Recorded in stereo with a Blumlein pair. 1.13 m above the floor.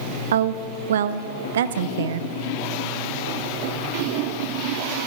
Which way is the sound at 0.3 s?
60° right.